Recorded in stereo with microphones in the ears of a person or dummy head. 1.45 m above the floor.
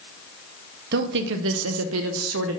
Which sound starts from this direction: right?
A woman speaking, at 0.9 s.